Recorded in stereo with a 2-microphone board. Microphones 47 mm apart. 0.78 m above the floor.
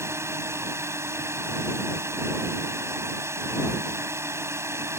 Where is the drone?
75° right (ahead or behind).